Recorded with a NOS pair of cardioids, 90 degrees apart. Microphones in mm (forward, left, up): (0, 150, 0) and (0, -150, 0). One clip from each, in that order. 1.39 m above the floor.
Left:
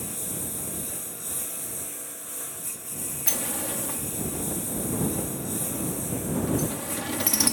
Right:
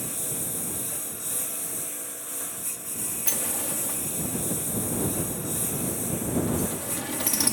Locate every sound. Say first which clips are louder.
0.0 s a lawn mower: right 1 dB; 15° right
3.3 s a sliding door: left 1 dB; 15° left